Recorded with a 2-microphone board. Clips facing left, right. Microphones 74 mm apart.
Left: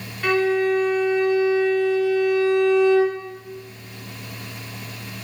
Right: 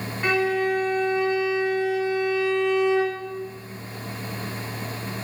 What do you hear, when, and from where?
0.2 s a violin: 20° right (ahead or behind), 2.5 m